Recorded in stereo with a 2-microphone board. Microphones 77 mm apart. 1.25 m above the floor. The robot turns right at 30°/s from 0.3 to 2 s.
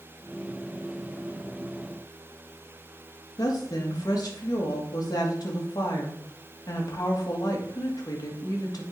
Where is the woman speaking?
55° left (ahead or behind), 2 m.